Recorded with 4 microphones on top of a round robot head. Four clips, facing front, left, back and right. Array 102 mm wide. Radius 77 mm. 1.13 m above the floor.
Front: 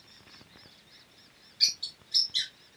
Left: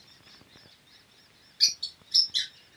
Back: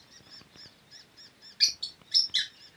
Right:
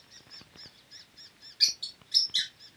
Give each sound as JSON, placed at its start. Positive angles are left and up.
{"t": 1.6, "sound": "a bird", "azimuth_deg": 170, "distance_m": 3.5}